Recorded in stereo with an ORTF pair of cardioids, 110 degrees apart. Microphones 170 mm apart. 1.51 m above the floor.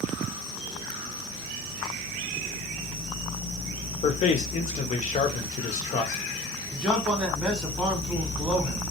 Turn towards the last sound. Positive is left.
turn(degrees=-5)